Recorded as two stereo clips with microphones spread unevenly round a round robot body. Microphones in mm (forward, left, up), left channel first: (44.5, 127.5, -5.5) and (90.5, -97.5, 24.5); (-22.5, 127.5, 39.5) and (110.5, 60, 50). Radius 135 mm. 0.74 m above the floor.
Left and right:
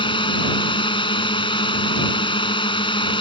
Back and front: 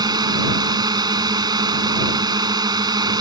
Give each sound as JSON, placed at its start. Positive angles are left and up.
{"t": 0.0, "sound": "a drone", "azimuth_deg": 35}